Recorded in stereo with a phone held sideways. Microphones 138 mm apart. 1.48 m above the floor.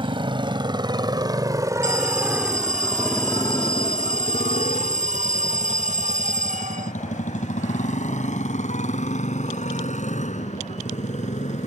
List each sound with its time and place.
0.0 s a motorcycle: 40° right (ahead or behind); by 11.7 s 60° left (ahead or behind)
1.8 s an alarm: 65° right (ahead or behind)